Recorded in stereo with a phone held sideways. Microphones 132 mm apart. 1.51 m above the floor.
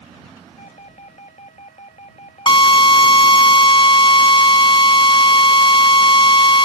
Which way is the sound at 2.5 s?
40° left (ahead or behind).